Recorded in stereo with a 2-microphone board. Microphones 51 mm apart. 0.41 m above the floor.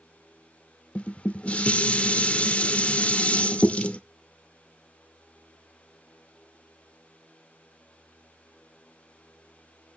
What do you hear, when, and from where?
0.9 s dishes clattering: 25° left (ahead or behind), 0.5 m